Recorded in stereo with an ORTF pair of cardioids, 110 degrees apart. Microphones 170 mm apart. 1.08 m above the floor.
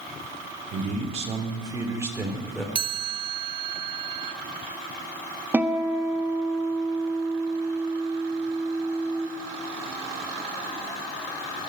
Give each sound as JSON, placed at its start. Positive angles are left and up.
{"t": 0.7, "sound": "a man speaking", "azimuth_deg": -50, "distance_m": 2.5}
{"t": 2.8, "sound": "a chime", "azimuth_deg": -30, "distance_m": 0.8}
{"t": 5.5, "sound": "a guitar", "azimuth_deg": -10, "distance_m": 1.3}